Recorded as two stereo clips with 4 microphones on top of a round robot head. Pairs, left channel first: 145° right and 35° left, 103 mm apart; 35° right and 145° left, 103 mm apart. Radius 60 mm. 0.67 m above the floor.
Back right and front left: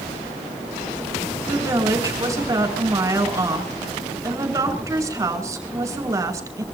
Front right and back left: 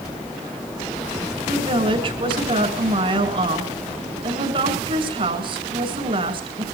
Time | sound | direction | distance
1.5 | a woman speaking | 100° left | 6.5 m